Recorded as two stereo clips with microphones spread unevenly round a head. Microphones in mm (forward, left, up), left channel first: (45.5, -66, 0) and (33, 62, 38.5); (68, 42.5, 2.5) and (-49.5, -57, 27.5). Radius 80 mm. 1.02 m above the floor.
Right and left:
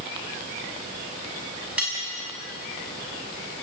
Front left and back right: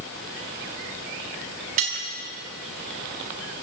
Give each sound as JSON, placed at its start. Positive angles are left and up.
{"t": 1.8, "sound": "cutlery clinking", "azimuth_deg": 175, "distance_m": 6.0}